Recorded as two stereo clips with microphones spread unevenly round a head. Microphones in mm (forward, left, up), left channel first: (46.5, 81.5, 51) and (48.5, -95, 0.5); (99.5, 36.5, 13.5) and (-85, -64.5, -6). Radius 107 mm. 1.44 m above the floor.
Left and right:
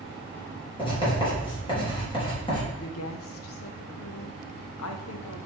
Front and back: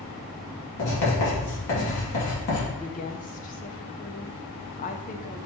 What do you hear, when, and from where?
0.8 s writing: 25° left, 3.5 m
2.8 s a woman speaking: 85° left, 0.8 m